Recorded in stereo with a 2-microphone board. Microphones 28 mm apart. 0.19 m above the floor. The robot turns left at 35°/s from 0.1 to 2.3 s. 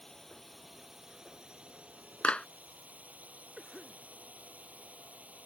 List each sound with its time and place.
0.0 s a drone: 15° left; by 5.5 s 60° right
2.2 s a clap: 45° left (ahead or behind)
3.6 s a cough: 5° right (ahead or behind)